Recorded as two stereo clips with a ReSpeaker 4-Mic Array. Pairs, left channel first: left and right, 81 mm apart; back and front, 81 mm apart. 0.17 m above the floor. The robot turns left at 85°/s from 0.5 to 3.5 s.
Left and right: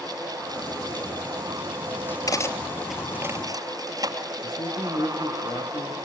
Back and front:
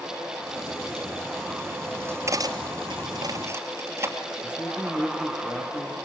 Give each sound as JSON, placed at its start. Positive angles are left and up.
{"t": 2.3, "sound": "cutlery clinking", "azimuth_deg": 50, "distance_m": 2.5}
{"t": 4.4, "sound": "a man speaking", "azimuth_deg": 115, "distance_m": 4.0}